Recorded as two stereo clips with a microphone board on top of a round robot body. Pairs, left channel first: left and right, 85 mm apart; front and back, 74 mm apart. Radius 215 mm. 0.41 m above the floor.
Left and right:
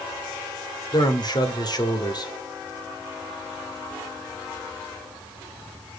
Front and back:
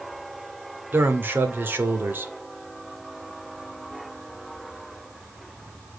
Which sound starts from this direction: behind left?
A man speaking, at 0.9 s.